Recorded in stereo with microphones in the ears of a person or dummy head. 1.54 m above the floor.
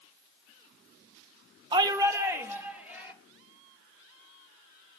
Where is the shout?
25° right (ahead or behind), 0.9 m; by 3.1 s 10° right (ahead or behind), 3 m.